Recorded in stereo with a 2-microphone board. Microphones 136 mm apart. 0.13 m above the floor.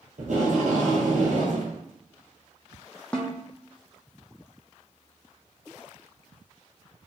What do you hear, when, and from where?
0.2 s tape being pulled: 65° right (ahead or behind), 1.8 m
3.1 s a snare drum: 10° left (ahead or behind), 0.9 m